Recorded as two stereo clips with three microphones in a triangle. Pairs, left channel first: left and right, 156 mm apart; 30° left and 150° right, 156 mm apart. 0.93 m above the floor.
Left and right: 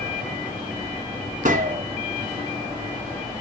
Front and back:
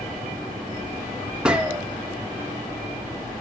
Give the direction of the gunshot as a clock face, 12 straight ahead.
2 o'clock.